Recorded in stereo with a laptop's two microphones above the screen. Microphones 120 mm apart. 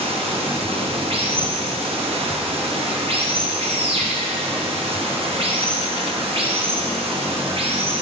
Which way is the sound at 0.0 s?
50° right (ahead or behind).